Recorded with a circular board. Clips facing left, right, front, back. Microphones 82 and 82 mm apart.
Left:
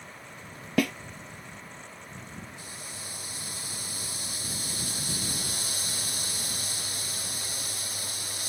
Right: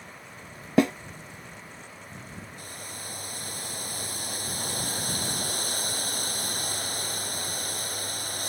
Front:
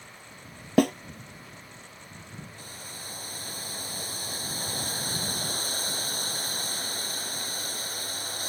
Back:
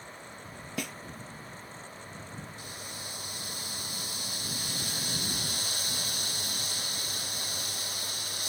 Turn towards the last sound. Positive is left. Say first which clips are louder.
# right 2 dB, back 1 dB
turn(degrees=-50)